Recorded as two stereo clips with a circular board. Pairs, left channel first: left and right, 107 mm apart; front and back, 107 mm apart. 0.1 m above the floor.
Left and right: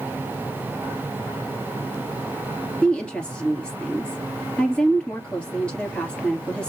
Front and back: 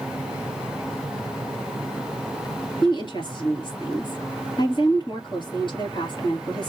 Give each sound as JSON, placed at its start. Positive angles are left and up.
{"t": 2.8, "sound": "a woman speaking", "azimuth_deg": 10, "distance_m": 2.0}